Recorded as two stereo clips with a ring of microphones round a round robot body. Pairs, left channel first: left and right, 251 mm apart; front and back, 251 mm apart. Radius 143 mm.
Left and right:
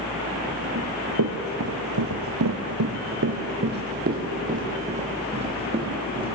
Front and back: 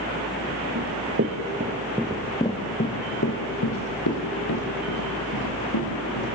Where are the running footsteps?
135° right, 3 m; by 6.3 s 20° right, 7 m.